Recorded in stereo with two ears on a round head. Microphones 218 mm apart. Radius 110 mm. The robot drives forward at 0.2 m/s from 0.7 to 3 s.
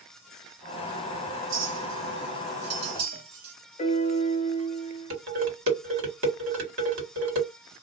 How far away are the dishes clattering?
About 2.5 m.